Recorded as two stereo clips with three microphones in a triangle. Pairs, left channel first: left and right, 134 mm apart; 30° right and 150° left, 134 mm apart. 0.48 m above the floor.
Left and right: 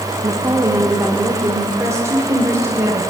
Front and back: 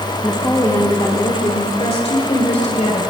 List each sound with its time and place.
0.2 s a woman speaking: 100° right, 1.3 m; by 3.0 s 25° right, 2.5 m